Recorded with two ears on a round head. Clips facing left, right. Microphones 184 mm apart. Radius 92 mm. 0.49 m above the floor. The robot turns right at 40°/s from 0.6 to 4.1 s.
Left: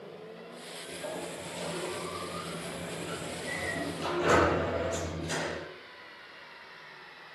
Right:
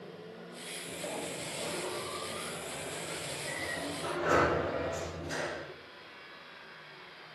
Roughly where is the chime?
No chime in this recording.